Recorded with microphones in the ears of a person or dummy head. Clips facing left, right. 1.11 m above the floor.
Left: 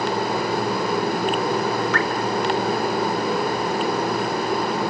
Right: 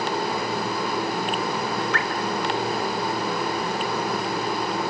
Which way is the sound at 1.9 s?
70° left (ahead or behind).